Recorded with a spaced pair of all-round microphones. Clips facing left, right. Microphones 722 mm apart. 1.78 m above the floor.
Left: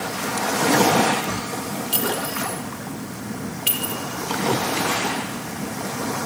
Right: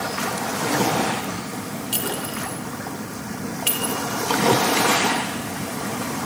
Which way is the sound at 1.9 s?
5° left (ahead or behind).